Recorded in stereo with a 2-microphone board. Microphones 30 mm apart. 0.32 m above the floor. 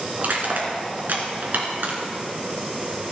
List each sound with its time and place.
0.2 s crushing: 70° right (ahead or behind), 3 m